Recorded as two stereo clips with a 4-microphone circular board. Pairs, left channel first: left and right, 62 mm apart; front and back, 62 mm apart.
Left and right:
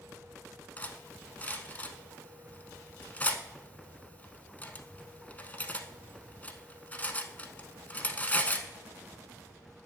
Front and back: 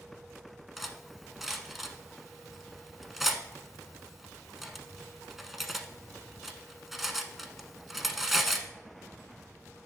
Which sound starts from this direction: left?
Cutlery clinking, at 0.8 s.